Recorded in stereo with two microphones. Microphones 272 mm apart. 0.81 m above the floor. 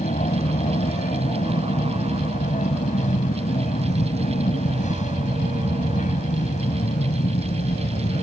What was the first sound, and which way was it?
An aircraft, 25° left (ahead or behind).